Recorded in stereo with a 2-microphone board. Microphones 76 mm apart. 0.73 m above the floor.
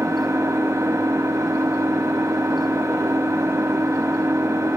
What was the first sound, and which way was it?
An engine running, 35° right (ahead or behind).